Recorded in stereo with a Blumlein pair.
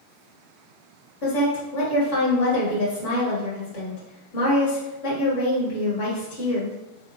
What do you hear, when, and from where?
1.2 s a woman speaking: 50° left, 1.9 m